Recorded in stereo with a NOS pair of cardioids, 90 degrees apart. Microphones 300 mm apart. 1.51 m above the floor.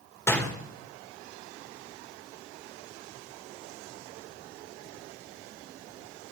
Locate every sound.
0.3 s a door slam: 10° left, 3.5 m